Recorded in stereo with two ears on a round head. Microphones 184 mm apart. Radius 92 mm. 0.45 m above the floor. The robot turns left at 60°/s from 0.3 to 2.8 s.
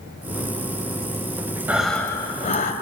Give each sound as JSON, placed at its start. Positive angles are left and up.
{"t": 1.7, "sound": "breathing", "azimuth_deg": -170, "distance_m": 2.0}